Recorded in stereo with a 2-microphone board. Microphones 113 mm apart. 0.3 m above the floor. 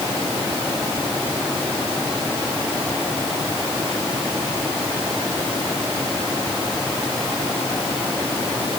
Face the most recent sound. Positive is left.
No sound to turn to.